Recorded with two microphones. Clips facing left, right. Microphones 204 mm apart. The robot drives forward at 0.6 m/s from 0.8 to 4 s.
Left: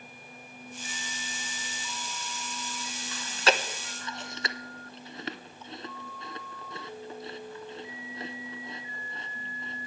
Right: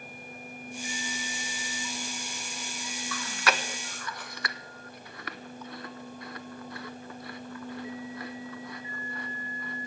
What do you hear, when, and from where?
3.1 s chewing: 25° left (ahead or behind), 0.7 m